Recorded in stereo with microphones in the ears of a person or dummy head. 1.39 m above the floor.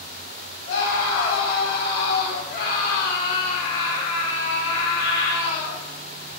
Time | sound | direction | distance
0.7 | a scream | 75° left (ahead or behind) | 4.5 m